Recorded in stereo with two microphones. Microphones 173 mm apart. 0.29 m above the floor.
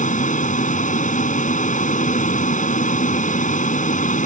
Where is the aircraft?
45° left (ahead or behind).